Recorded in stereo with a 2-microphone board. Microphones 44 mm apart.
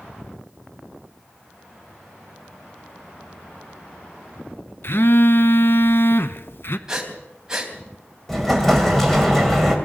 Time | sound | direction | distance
4.8 | a phone buzzing | 60° left (ahead or behind) | 1.0 m
6.9 | breathing | 15° right (ahead or behind) | 3.5 m
8.3 | an explosion | 5° left (ahead or behind) | 3 m